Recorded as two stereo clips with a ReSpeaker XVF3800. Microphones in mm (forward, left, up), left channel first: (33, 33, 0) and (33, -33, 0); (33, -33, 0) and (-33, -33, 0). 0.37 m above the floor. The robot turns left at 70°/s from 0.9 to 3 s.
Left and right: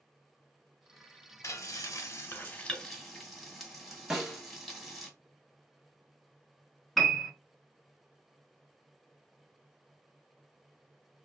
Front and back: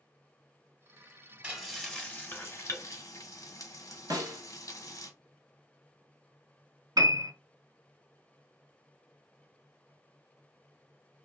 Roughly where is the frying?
Left.